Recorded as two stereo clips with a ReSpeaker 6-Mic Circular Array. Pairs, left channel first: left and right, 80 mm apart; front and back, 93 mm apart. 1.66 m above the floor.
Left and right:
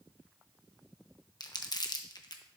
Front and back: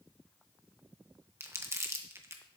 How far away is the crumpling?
About 1.0 m.